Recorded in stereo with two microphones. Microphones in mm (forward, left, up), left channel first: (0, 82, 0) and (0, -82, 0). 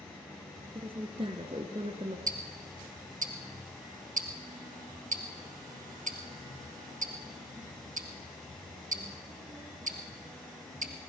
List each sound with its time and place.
0.8 s a woman speaking: 35° right (ahead or behind), 1.3 m
2.3 s ticking: 55° right (ahead or behind), 2 m